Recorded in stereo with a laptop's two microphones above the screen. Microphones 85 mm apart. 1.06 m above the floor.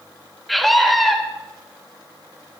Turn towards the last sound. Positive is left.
turn(degrees=0)  # may be behind; listen again after turning